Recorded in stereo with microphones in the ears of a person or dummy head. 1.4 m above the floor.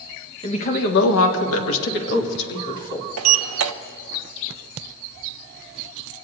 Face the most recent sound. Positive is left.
turn(degrees=-80)